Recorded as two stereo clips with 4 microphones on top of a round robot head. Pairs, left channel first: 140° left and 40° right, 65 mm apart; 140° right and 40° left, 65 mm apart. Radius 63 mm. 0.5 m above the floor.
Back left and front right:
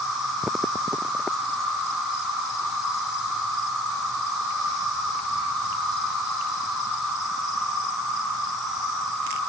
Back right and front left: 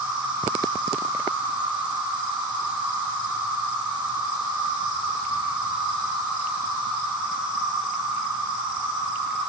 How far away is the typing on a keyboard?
I don't hear typing on a keyboard.